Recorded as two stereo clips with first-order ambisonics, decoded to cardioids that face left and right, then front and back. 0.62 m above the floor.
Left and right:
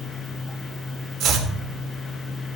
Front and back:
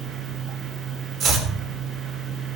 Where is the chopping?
130° right, 1.6 m.